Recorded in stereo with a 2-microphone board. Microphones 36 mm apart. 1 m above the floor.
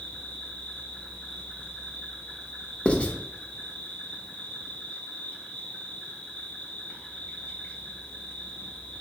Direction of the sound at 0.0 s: 35° left (ahead or behind).